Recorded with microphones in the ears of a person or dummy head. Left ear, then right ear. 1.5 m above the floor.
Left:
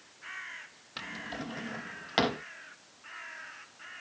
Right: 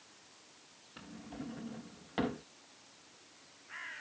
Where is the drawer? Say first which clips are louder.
Left 10 dB; 35° left (ahead or behind).